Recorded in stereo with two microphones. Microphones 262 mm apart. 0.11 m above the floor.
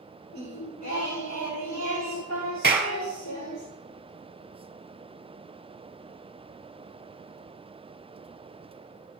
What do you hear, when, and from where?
0.3 s singing: 85° left, 5 m
2.6 s a clap: 40° right (ahead or behind), 1.7 m